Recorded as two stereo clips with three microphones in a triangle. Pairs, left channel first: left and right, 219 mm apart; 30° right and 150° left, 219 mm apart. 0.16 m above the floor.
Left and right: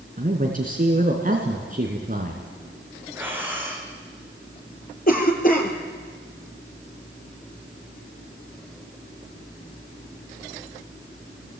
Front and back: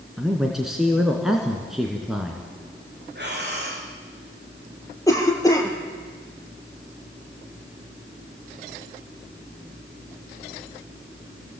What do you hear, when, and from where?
0.2 s a man speaking: 125° right, 2 m
3.1 s breathing: 170° right, 5 m
5.1 s a cough: 45° left, 3.5 m